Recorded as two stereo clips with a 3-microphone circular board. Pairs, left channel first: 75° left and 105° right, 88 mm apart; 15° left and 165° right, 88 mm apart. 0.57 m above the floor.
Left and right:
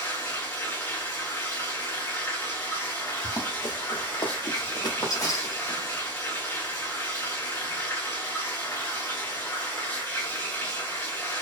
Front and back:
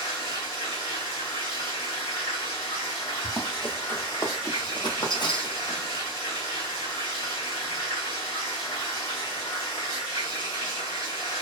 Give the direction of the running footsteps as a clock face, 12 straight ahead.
8 o'clock.